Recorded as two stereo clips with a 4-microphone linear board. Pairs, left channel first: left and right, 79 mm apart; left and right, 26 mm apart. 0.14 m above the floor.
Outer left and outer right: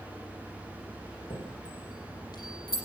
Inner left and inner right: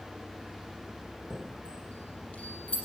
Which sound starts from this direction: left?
A chime, at 1.3 s.